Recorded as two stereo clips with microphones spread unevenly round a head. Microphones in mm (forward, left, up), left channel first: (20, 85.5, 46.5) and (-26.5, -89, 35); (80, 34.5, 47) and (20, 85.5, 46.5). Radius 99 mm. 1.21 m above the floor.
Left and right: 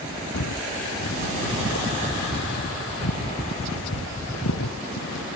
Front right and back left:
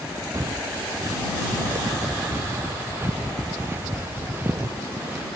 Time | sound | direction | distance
0.3 | footsteps | 90° left | ?